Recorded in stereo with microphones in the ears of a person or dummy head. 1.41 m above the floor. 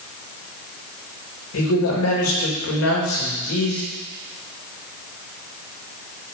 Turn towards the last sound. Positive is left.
turn(degrees=70)  # may be behind; listen again after turning